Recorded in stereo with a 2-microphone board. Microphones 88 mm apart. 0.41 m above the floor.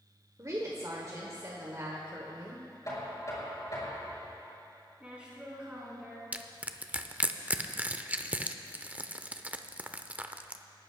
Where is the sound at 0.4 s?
40° right (ahead or behind), 1.5 m.